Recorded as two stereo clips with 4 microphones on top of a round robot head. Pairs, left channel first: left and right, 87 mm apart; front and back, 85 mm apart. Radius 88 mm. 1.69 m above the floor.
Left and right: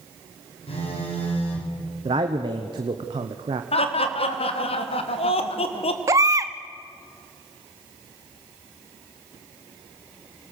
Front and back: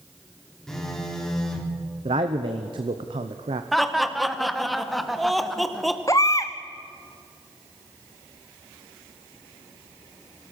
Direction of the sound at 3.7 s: 90° left.